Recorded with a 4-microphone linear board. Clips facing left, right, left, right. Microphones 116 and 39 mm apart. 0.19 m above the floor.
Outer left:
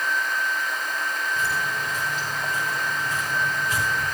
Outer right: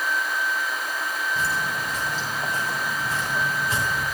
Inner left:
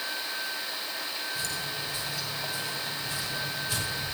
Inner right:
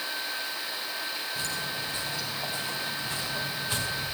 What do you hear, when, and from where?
1.4 s footsteps: 35° right (ahead or behind), 6.5 m; by 4.0 s 30° right (ahead or behind), 8.5 m